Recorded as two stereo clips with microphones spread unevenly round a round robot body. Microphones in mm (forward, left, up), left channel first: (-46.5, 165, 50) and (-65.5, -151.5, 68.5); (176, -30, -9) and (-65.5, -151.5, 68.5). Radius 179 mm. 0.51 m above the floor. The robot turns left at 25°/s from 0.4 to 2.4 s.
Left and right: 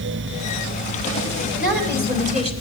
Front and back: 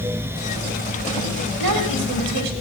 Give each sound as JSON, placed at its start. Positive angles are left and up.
{"t": 1.6, "sound": "a woman speaking", "azimuth_deg": -145, "distance_m": 3.0}